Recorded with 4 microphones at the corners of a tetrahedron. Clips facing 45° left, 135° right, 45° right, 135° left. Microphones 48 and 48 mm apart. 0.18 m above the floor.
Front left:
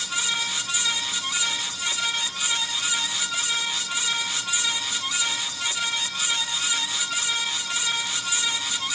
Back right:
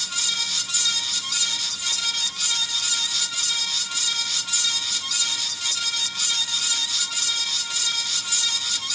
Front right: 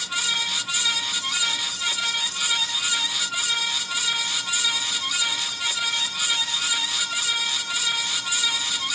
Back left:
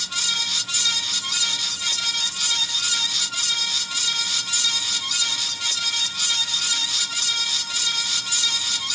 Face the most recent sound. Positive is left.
No sound to turn to.